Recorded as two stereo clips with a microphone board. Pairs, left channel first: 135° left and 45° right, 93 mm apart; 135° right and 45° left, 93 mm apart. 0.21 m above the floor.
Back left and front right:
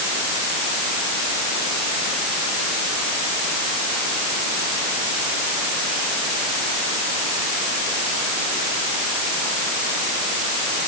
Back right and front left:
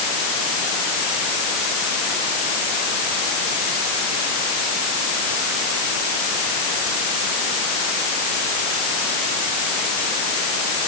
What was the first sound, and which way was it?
Only background noise.